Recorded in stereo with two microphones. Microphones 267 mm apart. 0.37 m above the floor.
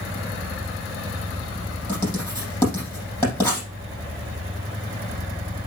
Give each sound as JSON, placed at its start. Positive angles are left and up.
{"t": 1.9, "sound": "writing", "side_deg": 10, "distance_m": 5.5}